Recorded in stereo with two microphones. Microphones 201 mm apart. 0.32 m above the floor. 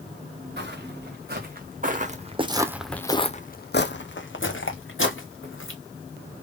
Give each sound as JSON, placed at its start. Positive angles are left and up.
{"t": 0.6, "sound": "footsteps", "side_deg": -55, "distance_m": 1.6}